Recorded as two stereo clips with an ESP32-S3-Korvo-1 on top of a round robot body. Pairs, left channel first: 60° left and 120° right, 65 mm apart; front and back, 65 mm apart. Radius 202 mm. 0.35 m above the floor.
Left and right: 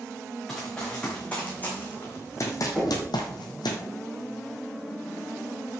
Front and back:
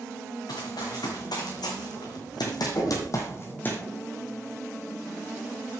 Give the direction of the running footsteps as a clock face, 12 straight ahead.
1 o'clock.